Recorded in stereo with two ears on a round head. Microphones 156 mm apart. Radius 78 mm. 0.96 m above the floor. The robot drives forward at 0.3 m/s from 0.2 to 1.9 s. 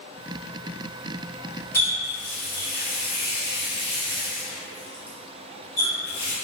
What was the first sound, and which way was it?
A running tap, 15° left (ahead or behind).